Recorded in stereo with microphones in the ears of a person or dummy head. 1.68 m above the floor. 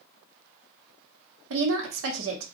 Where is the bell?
I don't hear a bell.